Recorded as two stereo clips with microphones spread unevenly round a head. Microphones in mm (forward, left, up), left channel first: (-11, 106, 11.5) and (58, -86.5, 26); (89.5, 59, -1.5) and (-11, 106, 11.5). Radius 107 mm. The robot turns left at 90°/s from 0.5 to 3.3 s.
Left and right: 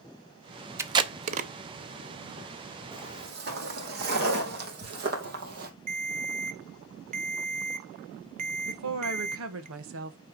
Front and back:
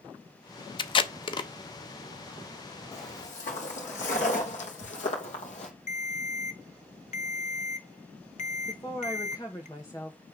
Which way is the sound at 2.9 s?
5° right.